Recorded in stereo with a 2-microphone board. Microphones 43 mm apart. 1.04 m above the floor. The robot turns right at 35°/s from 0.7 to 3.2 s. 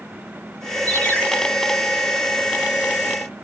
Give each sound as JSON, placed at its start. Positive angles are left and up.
{"t": 0.9, "sound": "a ringtone", "side_deg": 40, "distance_m": 2.5}